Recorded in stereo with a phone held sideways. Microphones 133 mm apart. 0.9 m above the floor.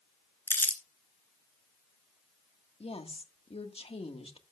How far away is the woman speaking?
About 1.5 m.